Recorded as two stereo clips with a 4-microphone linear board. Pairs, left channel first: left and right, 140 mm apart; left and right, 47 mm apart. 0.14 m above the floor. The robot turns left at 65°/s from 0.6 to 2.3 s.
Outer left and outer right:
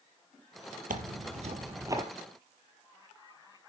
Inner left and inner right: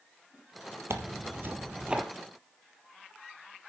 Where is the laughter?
I don't hear laughter.